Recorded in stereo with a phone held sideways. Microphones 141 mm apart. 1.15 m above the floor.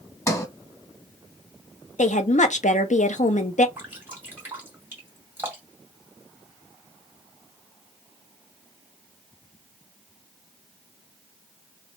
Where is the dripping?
15° right (ahead or behind), 1.8 m.